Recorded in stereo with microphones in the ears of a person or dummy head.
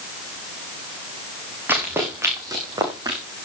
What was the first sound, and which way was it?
Running footsteps, 10° right (ahead or behind).